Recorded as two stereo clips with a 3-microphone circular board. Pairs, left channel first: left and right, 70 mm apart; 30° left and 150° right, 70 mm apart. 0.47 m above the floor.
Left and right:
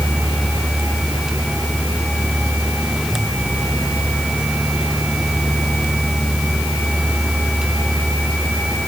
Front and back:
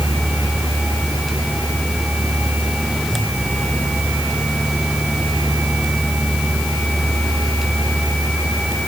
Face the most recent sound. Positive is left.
No sound to turn to.